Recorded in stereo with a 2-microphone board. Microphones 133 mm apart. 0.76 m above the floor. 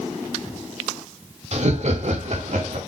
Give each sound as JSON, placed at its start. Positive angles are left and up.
{"t": 1.5, "sound": "laughter", "side_deg": -60, "distance_m": 2.0}